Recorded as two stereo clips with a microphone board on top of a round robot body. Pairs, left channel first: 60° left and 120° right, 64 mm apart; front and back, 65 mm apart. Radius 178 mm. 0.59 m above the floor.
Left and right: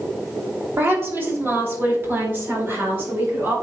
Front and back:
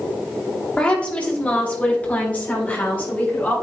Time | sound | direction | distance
0.8 | a woman speaking | 70° right | 3 m